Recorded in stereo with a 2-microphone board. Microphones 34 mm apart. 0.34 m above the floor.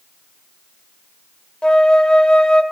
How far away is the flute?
About 0.5 m.